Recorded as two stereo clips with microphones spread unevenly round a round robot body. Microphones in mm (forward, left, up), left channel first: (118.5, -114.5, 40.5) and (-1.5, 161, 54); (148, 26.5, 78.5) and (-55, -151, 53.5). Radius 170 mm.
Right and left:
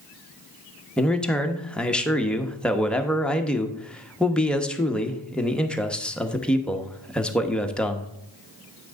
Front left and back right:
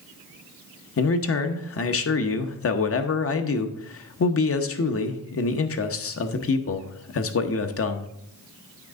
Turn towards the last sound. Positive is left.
turn(degrees=20)